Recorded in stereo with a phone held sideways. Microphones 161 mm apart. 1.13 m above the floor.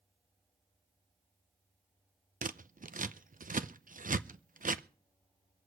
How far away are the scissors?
About 0.7 m.